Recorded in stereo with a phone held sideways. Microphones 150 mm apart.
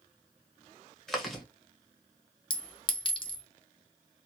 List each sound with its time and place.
1.1 s chewing: centre (ahead or behind), 1.0 m
2.5 s a clink: 35° left (ahead or behind), 0.6 m